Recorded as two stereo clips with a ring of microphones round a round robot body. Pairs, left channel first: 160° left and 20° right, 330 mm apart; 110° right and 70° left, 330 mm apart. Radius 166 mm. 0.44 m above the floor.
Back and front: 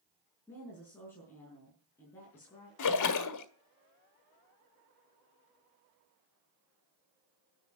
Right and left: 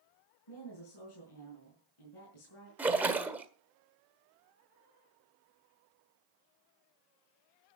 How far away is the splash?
About 1.5 m.